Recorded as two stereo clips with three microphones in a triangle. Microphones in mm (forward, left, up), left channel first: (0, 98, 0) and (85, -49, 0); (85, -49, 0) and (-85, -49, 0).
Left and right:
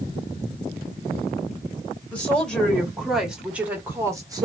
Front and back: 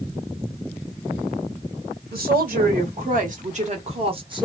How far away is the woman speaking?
About 2.0 m.